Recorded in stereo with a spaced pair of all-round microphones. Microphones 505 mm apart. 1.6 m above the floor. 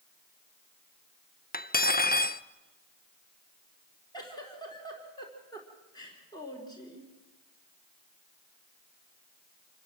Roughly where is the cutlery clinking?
Centre.